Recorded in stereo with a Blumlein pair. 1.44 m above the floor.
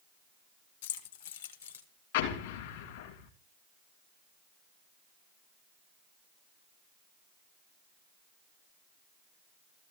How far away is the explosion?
About 2.5 m.